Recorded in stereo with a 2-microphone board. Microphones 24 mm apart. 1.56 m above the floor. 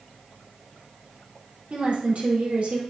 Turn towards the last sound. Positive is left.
turn(degrees=-75)  # may be behind; listen again after turning